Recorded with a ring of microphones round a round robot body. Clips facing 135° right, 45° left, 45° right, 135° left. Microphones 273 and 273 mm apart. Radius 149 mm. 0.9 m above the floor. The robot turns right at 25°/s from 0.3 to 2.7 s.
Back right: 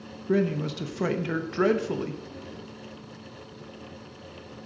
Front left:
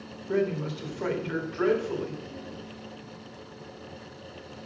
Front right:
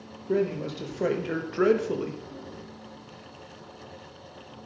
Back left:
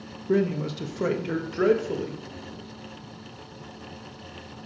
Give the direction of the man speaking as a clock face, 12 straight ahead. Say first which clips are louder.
Back right 2 dB, back left 2 dB; 6 o'clock.